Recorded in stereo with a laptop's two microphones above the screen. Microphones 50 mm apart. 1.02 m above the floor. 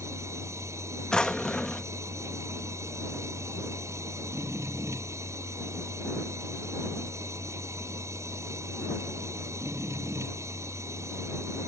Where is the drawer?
15° left (ahead or behind).